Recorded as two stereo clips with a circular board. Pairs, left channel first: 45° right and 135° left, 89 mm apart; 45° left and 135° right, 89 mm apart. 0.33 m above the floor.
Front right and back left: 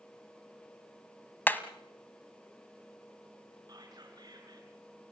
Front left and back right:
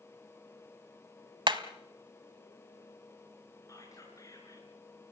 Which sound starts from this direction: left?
Whispering, at 3.7 s.